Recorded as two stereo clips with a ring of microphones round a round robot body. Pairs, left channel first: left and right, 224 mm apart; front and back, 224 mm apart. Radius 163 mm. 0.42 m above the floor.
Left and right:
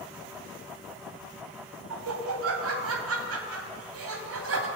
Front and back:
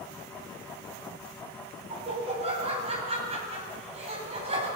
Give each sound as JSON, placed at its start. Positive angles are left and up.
{"t": 1.9, "sound": "laughter", "azimuth_deg": -110, "distance_m": 3.0}